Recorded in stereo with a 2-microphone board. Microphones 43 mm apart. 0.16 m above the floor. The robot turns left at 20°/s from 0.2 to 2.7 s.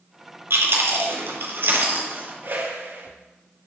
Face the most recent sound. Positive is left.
turn(degrees=-65)  # may be behind; listen again after turning